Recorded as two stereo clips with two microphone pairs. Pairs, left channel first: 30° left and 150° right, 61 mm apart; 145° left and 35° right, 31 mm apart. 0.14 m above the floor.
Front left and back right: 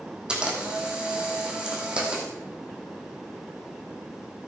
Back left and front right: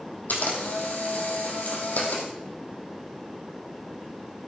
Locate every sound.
0.3 s a camera shutter: 135° left, 2.5 m